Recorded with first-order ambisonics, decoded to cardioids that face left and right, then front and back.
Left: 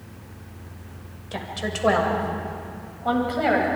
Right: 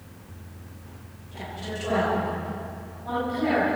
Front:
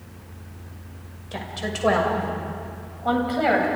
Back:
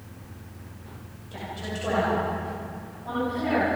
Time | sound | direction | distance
1.3 | a woman speaking | 60° left | 6.5 m